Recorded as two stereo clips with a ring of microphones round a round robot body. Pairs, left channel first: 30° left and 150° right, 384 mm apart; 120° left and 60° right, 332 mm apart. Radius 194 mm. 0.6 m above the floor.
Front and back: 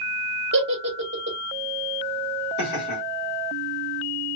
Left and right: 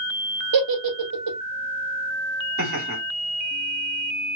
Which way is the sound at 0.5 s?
85° right.